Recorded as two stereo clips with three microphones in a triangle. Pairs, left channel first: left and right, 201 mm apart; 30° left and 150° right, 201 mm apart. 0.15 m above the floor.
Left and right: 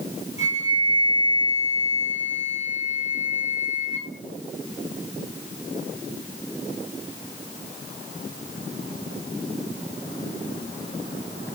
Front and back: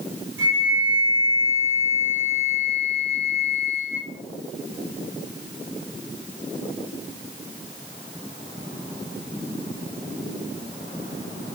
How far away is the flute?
About 5 m.